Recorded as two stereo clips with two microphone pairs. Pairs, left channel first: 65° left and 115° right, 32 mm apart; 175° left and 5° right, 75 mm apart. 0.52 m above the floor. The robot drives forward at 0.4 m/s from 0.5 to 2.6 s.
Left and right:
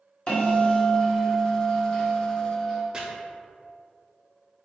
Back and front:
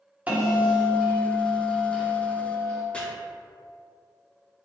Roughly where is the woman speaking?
No woman speaking in this recording.